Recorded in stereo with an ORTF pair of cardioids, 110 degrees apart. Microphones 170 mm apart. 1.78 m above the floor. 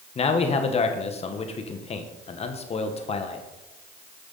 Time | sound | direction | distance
0.1 | a man speaking | 35° left | 1.4 m